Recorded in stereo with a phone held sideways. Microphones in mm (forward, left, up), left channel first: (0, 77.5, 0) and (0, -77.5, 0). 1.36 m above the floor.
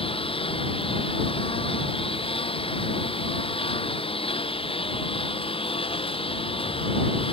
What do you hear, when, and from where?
0.0 s a lawn mower: 35° left (ahead or behind)